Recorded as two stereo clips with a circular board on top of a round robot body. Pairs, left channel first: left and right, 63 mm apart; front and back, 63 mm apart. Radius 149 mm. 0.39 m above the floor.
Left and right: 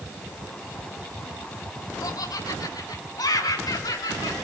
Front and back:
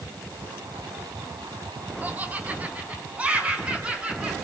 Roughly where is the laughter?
Behind left.